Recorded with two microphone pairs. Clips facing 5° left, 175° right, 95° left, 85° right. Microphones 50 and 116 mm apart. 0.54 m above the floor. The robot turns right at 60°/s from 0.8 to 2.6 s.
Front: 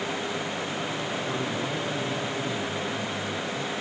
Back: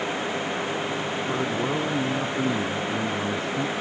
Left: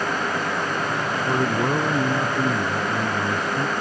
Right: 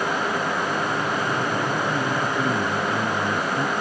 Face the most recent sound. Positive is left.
turn(degrees=-175)